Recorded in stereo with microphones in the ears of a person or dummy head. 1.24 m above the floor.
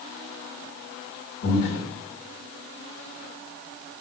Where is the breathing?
50° left (ahead or behind), 1.2 m.